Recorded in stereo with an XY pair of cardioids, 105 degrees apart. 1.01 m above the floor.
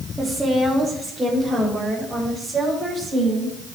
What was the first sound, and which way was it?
A woman speaking, 15° right.